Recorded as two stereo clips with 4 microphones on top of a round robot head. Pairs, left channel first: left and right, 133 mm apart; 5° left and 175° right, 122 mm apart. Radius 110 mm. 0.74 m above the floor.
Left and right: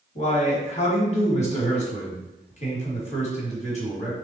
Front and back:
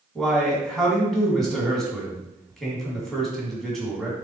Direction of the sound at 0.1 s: 95° left.